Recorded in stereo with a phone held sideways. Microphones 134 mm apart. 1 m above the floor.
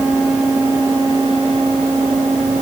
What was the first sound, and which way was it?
Only background noise.